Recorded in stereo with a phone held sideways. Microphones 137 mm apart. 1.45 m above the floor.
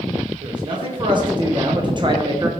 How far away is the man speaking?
About 2 m.